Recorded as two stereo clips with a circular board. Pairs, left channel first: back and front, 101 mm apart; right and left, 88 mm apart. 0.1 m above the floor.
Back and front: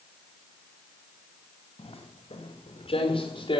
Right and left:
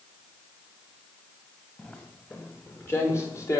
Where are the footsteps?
160° right, 4.5 m; by 3.6 s 140° right, 5 m.